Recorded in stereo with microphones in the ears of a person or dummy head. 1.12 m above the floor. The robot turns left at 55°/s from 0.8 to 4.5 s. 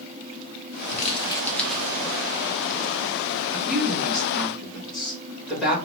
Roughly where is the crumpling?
Ahead left.